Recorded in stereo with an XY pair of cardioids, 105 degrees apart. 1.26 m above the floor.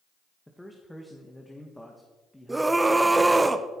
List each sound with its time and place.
0.5 s a man speaking: 10° left, 1.7 m
2.5 s a scream: 15° right, 1.0 m